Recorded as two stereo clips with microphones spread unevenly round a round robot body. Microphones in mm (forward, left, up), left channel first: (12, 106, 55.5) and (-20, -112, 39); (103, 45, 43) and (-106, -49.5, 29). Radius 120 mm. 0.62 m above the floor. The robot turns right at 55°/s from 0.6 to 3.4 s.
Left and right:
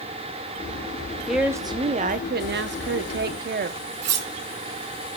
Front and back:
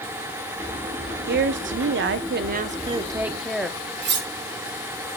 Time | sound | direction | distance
1.3 | a woman speaking | 175° left | 0.9 m
4.0 | cutlery clinking | 110° right | 1.3 m